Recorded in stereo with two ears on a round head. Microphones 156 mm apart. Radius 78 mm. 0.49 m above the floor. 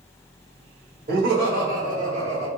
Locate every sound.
1.1 s laughter: 55° right (ahead or behind), 1.5 m; by 2.5 s 35° right (ahead or behind), 0.9 m